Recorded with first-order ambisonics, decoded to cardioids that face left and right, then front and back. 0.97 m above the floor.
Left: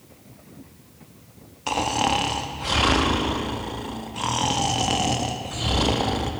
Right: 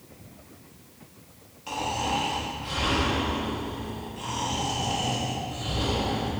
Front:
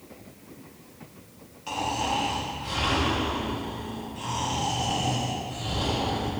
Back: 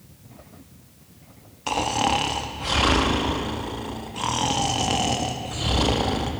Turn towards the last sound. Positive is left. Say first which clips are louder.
# left 6 dB, back 5 dB
turn(degrees=130)